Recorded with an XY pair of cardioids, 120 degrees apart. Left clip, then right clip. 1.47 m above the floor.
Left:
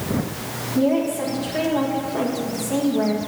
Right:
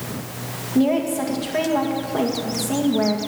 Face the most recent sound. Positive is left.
turn(degrees=-45)